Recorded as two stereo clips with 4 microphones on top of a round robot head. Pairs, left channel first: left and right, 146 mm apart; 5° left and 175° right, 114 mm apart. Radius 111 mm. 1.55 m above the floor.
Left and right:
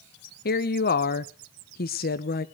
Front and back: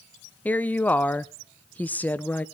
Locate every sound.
0.5 s a woman speaking: 80° left, 1.0 m